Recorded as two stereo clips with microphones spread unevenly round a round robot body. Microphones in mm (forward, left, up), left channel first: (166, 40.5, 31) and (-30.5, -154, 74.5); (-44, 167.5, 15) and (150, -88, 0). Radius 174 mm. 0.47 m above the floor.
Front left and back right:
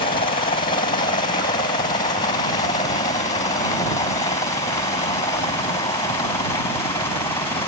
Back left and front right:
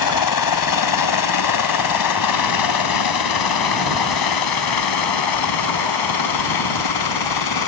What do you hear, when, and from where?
0.0 s a helicopter: 115° left; by 7.7 s 125° left